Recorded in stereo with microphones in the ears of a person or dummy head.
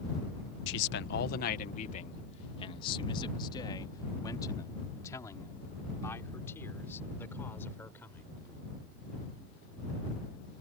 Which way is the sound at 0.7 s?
75° left (ahead or behind).